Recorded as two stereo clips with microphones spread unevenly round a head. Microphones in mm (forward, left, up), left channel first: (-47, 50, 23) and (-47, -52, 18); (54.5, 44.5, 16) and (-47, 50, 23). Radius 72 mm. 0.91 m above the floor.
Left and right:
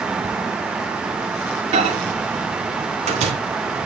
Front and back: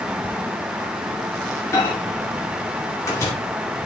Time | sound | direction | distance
1.7 | a microwave | 70° right | 2 m